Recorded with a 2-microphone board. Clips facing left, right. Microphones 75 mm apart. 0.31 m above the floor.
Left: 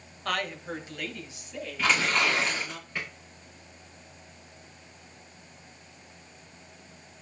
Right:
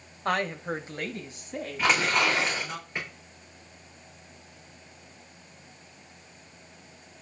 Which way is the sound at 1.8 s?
15° right (ahead or behind).